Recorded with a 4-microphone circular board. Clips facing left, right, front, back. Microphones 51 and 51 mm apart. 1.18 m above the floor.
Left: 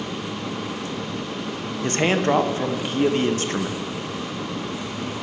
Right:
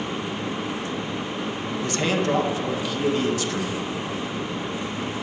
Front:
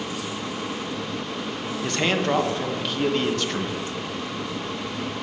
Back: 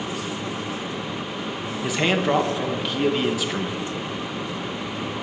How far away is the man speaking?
About 0.7 m.